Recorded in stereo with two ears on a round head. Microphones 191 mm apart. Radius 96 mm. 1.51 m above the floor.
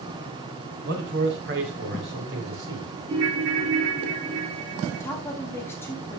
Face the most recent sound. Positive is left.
turn(degrees=10)  # may be behind; listen again after turning